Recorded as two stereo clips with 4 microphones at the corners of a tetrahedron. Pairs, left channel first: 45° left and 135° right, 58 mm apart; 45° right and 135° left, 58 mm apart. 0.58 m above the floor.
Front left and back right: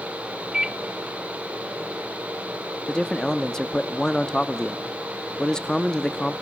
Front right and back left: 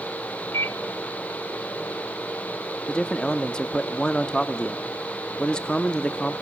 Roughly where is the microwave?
Ahead right.